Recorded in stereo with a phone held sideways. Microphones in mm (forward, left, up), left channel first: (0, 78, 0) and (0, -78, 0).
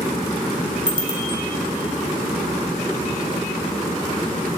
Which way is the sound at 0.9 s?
35° right (ahead or behind).